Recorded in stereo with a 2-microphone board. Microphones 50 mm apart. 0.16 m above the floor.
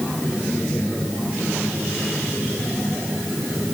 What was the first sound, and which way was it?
Only background noise.